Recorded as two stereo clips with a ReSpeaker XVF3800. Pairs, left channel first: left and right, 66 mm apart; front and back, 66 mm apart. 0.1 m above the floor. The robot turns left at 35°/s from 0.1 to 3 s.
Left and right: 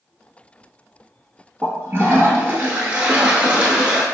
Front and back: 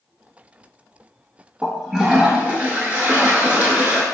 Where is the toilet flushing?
95° right, 0.7 m; by 4.0 s 140° right, 0.7 m.